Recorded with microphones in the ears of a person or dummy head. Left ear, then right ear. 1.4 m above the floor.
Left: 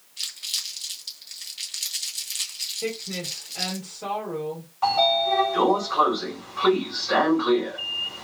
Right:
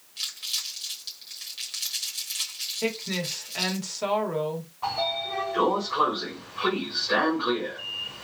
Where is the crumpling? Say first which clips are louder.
Left 1 dB; 10° right (ahead or behind), 1.3 m.